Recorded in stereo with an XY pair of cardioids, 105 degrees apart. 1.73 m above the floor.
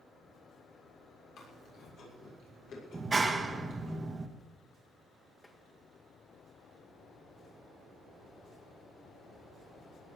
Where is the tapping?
20° left, 3 m.